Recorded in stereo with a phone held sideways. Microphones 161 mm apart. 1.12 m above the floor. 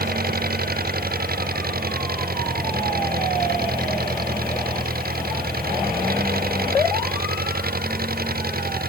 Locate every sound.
0.0 s an engine running: 65° right (ahead or behind)